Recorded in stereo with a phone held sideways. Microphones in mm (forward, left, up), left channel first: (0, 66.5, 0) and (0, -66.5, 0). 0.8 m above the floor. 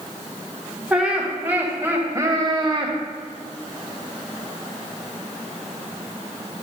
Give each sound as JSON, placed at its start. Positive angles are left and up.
{"t": 0.9, "sound": "laughter", "side_deg": -10, "distance_m": 2.5}